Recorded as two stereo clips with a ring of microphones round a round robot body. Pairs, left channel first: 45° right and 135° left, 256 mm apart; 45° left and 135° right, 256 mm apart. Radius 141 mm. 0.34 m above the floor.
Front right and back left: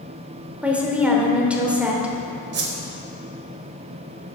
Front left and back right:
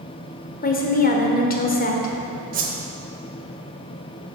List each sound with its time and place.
0.6 s a woman speaking: 55° left, 1.2 m
2.5 s a whoosh: 175° left, 1.1 m